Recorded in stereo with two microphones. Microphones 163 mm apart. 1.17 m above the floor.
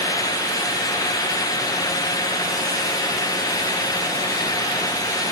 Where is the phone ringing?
I don't hear a phone ringing.